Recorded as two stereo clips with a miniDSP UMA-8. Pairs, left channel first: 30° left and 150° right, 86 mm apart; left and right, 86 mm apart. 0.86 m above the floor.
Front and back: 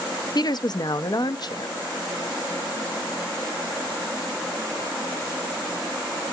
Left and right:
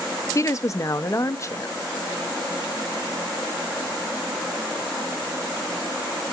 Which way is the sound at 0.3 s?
45° left.